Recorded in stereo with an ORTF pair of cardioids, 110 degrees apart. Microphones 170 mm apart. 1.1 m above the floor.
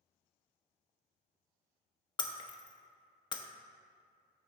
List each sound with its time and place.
2.2 s breaking glass: 25° left, 0.7 m